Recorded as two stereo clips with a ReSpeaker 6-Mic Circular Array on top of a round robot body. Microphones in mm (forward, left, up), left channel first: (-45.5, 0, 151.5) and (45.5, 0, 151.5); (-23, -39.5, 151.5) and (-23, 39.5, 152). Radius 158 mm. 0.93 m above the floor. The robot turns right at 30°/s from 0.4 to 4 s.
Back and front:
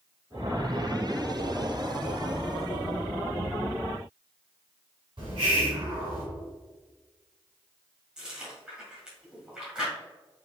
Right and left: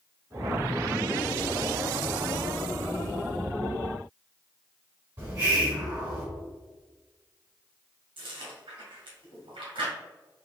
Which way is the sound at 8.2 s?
80° left.